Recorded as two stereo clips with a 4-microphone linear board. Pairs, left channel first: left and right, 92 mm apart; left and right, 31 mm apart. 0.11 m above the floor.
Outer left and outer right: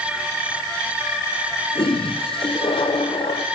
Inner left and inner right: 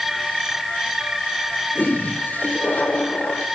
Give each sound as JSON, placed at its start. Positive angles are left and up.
{"t": 1.8, "sound": "a toilet flushing", "side_deg": 70, "distance_m": 2.0}